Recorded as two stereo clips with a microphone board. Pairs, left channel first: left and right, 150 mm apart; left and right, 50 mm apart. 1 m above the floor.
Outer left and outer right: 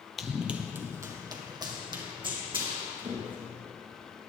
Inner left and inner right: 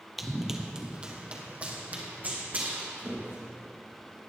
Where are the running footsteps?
Centre (ahead or behind), 1.0 m; by 3.5 s 40° right (ahead or behind), 3 m.